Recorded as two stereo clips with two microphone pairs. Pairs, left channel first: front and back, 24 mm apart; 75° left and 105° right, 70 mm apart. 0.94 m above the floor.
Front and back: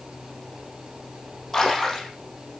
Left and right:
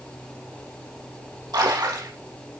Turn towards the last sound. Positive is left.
turn(degrees=-85)